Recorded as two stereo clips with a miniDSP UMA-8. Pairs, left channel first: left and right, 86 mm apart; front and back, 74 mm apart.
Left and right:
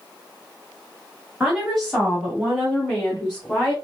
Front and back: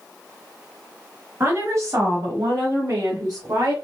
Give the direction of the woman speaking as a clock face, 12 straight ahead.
6 o'clock.